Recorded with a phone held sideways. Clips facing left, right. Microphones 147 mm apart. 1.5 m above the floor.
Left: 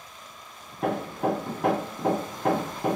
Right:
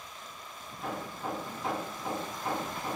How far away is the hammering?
About 1.1 m.